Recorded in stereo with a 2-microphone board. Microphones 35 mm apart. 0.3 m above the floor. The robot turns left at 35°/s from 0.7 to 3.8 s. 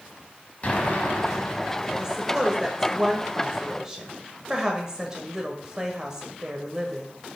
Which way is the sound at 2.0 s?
15° right (ahead or behind).